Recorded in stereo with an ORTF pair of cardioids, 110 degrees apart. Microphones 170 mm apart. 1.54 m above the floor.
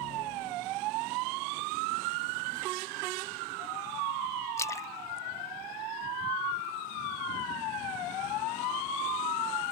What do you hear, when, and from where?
4.6 s a splash: 15° left